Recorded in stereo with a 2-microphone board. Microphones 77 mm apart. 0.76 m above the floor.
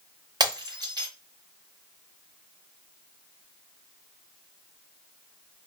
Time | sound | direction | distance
0.4 | breaking glass | 65° right (ahead or behind) | 1.1 m